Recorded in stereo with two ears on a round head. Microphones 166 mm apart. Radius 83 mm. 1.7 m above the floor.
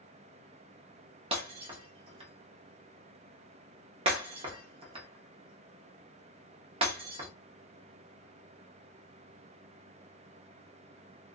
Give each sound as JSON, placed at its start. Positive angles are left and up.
{"t": 1.3, "sound": "breaking glass", "side_deg": -30, "distance_m": 1.1}